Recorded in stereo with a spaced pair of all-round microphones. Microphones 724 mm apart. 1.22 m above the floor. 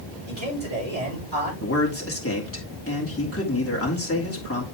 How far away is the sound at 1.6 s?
About 3 m.